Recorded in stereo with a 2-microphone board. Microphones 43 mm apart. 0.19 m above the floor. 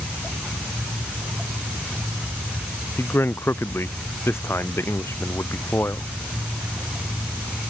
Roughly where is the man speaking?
Left.